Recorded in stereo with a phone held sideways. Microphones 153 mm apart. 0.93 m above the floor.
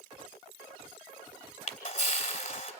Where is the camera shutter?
55° left (ahead or behind), 1.6 m.